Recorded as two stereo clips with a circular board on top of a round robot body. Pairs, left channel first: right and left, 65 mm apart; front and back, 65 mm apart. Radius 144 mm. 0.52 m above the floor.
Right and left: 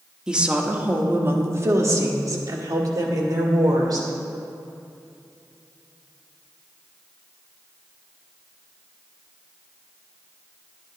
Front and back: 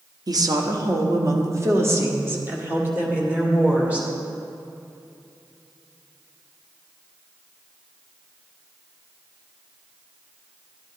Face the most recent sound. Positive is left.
turn(degrees=110)